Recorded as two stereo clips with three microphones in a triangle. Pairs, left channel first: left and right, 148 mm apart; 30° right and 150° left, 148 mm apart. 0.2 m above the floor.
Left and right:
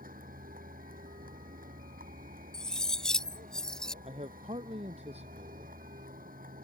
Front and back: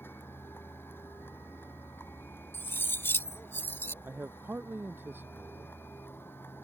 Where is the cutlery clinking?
10° left.